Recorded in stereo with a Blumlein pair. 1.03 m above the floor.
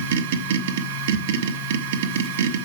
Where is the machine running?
55° right, 1.0 m.